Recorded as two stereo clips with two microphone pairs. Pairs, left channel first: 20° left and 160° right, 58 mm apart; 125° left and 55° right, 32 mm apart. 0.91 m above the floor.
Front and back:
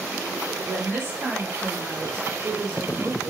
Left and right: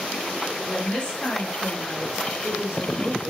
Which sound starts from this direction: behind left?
A woman speaking, at 0.7 s.